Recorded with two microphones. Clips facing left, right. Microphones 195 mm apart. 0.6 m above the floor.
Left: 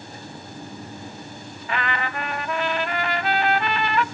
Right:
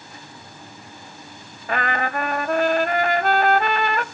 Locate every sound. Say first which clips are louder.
1.7 s a trumpet: right 4 dB; 50° right (ahead or behind), 0.6 m